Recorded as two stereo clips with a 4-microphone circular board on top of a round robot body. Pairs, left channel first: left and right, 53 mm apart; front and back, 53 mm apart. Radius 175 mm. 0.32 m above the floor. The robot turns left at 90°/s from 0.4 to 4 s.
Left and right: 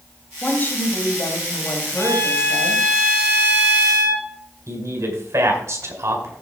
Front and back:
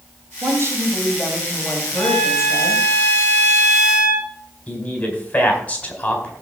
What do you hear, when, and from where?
0.4 s a woman speaking: 165° left, 3 m; by 2.9 s 55° right, 3 m
2.0 s a violin: 95° left, 7 m; by 4.3 s 90° right, 7 m
4.7 s a man speaking: 65° right, 4 m